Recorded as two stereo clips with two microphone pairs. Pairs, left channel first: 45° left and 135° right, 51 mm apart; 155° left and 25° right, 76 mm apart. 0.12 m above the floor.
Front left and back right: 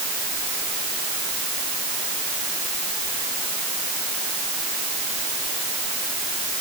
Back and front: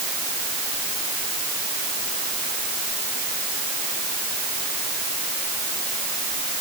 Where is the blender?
I don't hear a blender.